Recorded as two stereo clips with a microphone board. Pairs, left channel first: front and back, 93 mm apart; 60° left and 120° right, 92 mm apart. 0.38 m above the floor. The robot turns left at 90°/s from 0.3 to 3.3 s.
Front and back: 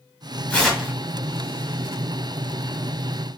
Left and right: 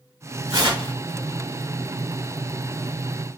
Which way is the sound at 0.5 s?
75° right.